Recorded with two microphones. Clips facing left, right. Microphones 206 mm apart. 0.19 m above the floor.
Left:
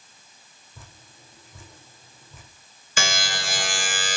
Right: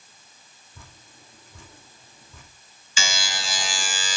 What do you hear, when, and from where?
0.8 s dripping: 5° left (ahead or behind), 5 m
3.0 s a buzzer: 60° left (ahead or behind), 2 m